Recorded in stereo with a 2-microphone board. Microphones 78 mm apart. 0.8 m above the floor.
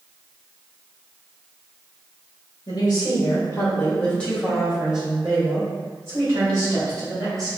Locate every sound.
2.7 s a woman speaking: 55° left (ahead or behind), 1.9 m; by 7.5 s 45° right (ahead or behind), 3.5 m